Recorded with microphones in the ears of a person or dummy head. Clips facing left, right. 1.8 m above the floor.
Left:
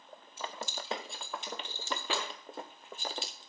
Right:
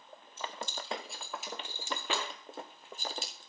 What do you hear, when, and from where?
0.4 s keys jangling: 10° left (ahead or behind), 2.5 m; by 3.5 s 40° right (ahead or behind), 2.5 m